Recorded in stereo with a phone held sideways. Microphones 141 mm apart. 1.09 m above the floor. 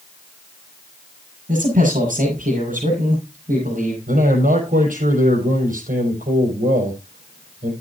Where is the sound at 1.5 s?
70° right (ahead or behind), 6.5 m.